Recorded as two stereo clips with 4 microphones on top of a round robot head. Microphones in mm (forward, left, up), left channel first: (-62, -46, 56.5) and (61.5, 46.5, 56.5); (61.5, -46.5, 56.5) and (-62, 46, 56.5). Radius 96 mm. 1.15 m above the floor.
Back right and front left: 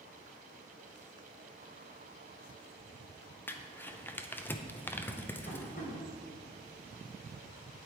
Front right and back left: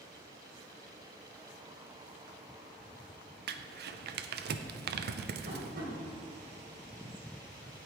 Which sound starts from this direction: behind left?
Crumpling, at 3.5 s.